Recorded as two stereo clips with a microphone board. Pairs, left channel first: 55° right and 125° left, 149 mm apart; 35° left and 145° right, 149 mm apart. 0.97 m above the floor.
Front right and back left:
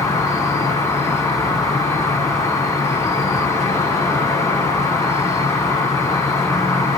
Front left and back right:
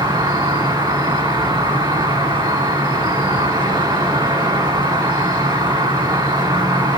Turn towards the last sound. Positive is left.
turn(degrees=-110)